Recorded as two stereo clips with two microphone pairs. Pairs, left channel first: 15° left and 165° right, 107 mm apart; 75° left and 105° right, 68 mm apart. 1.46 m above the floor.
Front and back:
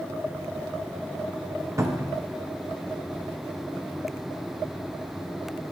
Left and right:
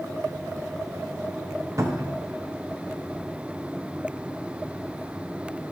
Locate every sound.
1.8 s a cupboard door: 120° right, 0.8 m